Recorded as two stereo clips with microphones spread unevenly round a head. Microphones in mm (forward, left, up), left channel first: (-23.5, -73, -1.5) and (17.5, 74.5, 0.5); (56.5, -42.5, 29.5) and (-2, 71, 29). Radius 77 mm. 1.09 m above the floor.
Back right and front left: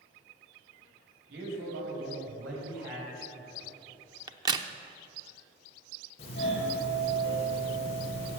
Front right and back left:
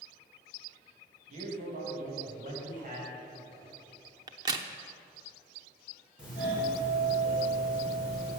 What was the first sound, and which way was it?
A man speaking, 90° left.